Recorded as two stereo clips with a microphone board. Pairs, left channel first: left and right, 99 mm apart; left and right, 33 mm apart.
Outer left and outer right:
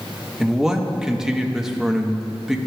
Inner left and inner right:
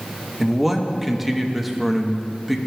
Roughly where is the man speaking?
Centre.